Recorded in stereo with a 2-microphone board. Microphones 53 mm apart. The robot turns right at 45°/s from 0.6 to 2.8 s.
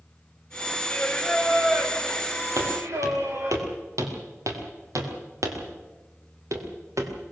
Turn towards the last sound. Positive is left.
turn(degrees=-70)  # may be behind; listen again after turning